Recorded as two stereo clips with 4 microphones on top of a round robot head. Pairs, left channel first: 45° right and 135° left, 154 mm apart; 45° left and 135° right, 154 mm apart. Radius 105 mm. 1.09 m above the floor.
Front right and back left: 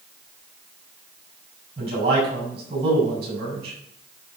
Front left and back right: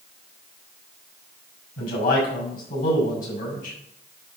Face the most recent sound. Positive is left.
turn(degrees=80)